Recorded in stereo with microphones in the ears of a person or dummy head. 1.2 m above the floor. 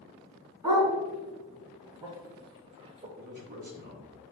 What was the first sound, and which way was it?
A dog barking, 15° right (ahead or behind).